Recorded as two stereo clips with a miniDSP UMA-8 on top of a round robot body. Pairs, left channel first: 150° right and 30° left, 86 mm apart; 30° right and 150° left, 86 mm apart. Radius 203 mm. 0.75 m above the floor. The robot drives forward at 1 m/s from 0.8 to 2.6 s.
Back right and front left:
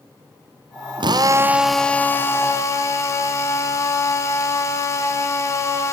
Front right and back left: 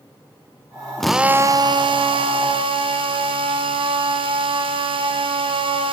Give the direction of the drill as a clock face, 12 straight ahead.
10 o'clock.